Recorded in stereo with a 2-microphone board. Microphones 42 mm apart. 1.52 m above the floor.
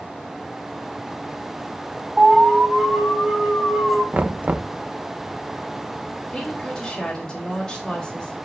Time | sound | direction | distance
2.2 | an alarm | 10° right (ahead or behind) | 6 m
4.1 | knocking | 40° right (ahead or behind) | 0.7 m
6.3 | a woman speaking | 20° left (ahead or behind) | 4 m